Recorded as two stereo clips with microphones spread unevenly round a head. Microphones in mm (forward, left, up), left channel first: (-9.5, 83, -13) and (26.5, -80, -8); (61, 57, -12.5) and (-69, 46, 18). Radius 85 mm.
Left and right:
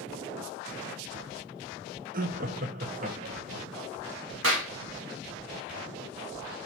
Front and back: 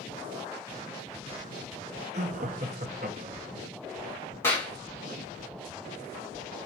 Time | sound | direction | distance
2.1 | laughter | 120° right | 0.8 m
4.4 | a clap | 75° right | 2 m